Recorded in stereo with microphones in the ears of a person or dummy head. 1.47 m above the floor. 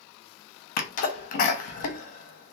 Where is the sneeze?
40° left (ahead or behind), 0.7 m.